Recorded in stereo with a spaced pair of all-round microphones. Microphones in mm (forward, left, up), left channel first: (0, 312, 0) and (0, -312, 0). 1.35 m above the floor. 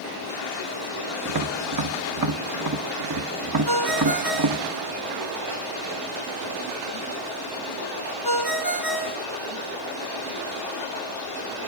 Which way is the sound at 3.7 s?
35° right (ahead or behind).